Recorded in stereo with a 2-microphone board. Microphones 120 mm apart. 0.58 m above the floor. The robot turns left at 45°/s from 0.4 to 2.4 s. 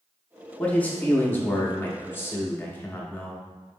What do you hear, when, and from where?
0.6 s a man speaking: 10° left (ahead or behind), 0.6 m; by 3.4 s 15° left (ahead or behind), 0.6 m